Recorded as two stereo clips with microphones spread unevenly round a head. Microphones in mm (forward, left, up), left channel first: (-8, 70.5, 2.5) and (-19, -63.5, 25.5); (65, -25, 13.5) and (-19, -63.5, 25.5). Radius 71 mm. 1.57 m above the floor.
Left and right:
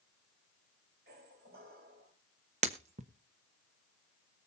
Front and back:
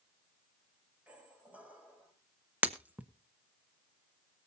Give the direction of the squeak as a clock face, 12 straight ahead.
3 o'clock.